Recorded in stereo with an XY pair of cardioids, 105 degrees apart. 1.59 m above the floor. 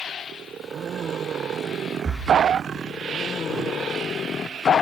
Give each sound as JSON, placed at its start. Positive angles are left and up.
{"t": 2.0, "sound": "breathing", "azimuth_deg": -35, "distance_m": 1.8}